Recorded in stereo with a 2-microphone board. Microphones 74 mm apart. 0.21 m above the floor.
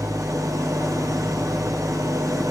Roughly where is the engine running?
Right.